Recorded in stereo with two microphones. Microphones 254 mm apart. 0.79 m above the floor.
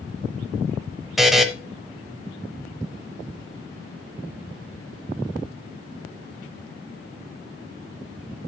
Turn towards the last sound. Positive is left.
turn(degrees=0)  # may be behind; listen again after turning